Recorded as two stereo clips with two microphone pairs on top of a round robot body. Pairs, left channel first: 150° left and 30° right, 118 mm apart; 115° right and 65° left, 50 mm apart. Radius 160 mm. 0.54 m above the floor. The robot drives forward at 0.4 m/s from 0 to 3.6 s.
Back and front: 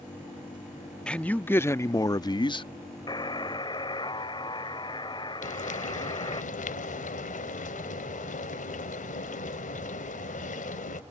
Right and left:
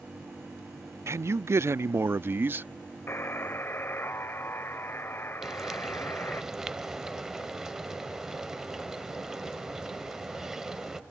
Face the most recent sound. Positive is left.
turn(degrees=150)